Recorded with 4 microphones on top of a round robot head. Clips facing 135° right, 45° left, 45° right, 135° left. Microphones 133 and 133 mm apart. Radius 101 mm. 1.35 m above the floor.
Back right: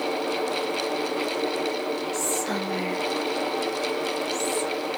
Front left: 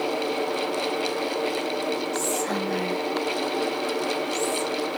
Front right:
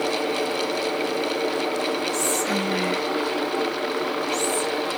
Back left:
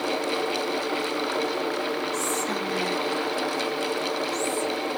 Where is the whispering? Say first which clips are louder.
Front left 1 dB, front right 3 dB; 30° right, 0.9 m.